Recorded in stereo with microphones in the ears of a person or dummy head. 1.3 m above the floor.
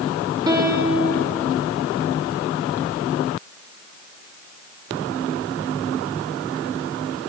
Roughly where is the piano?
Right.